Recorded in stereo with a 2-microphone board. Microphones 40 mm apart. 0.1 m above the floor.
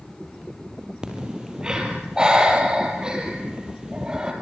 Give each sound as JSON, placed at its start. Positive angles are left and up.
{"t": 1.0, "sound": "breathing", "side_deg": -20, "distance_m": 3.5}